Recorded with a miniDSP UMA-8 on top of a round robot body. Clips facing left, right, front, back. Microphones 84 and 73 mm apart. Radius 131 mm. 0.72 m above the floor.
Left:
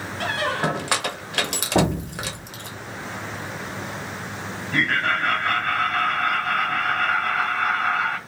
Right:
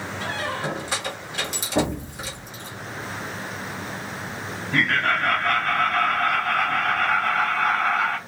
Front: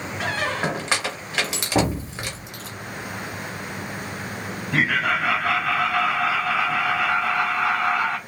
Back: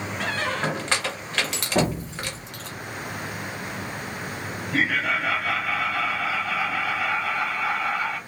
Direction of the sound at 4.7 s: 10° right.